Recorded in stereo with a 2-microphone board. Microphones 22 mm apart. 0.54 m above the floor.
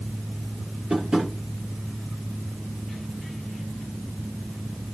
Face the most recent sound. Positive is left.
turn(degrees=-45)  # may be behind; listen again after turning